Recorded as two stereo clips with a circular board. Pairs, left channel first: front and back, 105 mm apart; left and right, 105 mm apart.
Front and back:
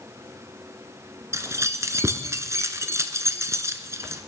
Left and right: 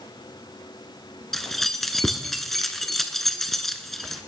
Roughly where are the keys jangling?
Behind.